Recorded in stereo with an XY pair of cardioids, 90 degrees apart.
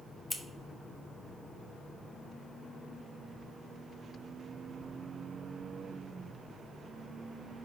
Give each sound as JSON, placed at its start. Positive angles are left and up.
{"t": 0.3, "sound": "scissors", "azimuth_deg": 15, "distance_m": 1.1}